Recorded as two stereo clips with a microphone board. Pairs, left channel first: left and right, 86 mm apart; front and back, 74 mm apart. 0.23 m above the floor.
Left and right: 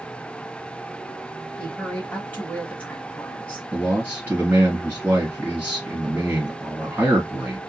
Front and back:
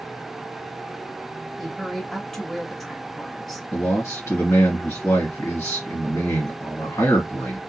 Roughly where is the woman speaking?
Left.